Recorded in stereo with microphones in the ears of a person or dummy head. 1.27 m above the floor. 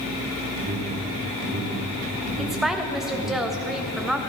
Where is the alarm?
80° right, 2.5 m.